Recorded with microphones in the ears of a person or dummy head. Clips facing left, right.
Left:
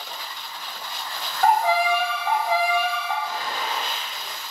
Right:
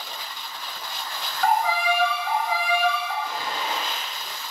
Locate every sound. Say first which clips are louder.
1.4 s a violin: left 3 dB; 45° left (ahead or behind), 0.6 m
3.2 s a gunshot: even; 25° right (ahead or behind), 0.9 m